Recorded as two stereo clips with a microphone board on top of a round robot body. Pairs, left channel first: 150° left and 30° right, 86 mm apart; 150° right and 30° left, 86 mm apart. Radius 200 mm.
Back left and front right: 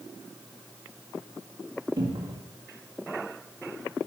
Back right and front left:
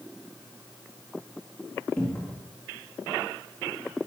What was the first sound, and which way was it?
A cupboard door, 75° right.